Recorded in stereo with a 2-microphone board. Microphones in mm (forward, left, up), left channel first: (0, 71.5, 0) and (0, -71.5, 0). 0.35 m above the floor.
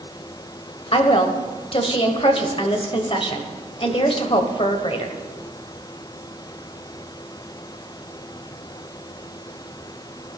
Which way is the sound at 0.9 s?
40° left (ahead or behind).